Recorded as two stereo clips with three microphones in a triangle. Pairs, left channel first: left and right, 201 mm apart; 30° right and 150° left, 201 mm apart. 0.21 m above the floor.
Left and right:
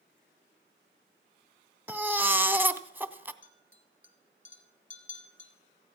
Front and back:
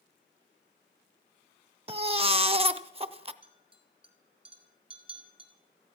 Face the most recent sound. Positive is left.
turn(degrees=90)